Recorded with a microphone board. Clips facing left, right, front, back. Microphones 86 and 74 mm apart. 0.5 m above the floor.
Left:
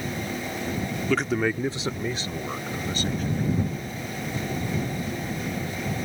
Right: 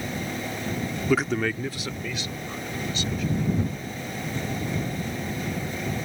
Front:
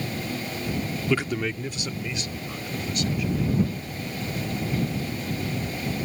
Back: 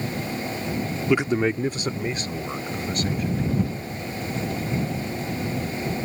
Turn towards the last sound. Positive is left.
turn(degrees=135)